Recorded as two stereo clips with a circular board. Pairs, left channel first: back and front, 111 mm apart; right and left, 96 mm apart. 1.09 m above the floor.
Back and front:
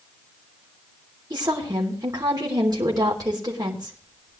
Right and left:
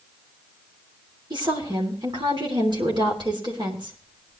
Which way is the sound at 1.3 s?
50° left.